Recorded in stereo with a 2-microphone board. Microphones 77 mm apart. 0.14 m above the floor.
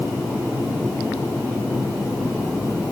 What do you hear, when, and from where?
Only background noise.